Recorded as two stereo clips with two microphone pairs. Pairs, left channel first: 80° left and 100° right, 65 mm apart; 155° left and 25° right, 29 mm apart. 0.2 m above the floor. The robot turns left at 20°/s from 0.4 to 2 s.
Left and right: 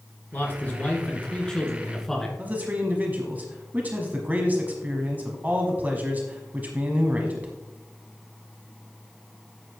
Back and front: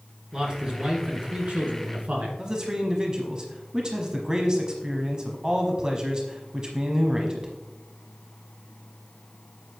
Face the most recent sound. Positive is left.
turn(degrees=-65)